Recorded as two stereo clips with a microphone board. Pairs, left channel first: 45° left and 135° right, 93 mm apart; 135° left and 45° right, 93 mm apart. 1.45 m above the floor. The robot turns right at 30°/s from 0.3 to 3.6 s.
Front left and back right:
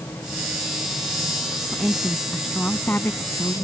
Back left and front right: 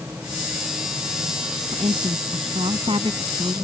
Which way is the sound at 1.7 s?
65° right.